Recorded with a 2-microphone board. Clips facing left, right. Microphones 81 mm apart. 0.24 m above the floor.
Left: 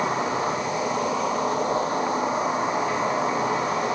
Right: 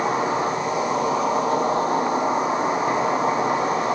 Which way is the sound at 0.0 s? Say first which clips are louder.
Right 3 dB; 65° right (ahead or behind).